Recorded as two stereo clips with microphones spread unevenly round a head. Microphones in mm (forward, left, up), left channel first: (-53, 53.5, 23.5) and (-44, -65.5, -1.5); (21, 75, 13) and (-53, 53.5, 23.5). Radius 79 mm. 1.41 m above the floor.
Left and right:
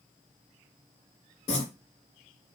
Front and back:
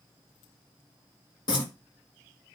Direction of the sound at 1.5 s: 40° left.